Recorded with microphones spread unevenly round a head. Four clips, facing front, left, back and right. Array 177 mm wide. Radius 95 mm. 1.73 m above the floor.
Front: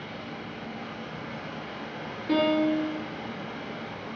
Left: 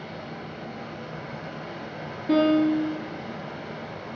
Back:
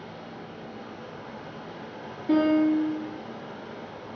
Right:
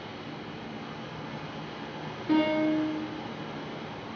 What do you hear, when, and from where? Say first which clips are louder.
0.0 s running water: left 3 dB, front 2 dB; 70° left, 3 m
2.3 s a piano: left 5 dB, back 3 dB; 140° left, 3.5 m